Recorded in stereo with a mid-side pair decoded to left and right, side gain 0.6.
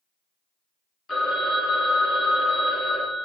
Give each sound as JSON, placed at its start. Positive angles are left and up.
{"t": 1.1, "sound": "a phone ringing", "azimuth_deg": 30, "distance_m": 1.4}